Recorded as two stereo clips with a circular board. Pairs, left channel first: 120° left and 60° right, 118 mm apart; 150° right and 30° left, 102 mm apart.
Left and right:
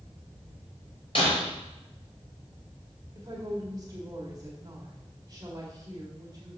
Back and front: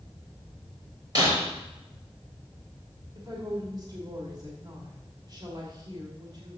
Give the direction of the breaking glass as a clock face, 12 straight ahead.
9 o'clock.